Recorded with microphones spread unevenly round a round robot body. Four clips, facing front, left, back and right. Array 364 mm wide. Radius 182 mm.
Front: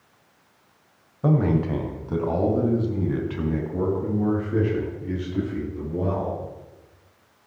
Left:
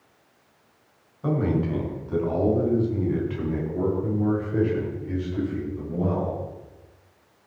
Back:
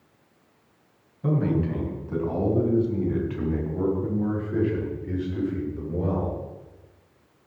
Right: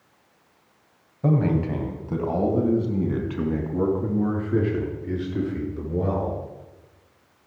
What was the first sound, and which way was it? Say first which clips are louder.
A man speaking: right 2 dB, front 3 dB; 35° right.